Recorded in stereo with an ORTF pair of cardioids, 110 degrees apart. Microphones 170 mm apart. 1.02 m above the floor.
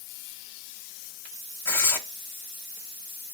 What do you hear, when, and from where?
1.6 s tearing paper: 15° left, 1.0 m